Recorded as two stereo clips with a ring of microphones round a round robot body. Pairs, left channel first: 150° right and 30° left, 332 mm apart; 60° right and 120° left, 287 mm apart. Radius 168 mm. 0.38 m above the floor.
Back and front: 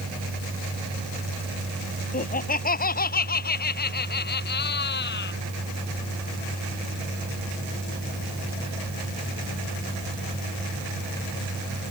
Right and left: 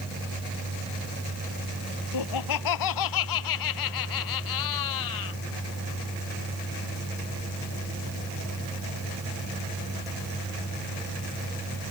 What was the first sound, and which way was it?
Laughter, 85° right.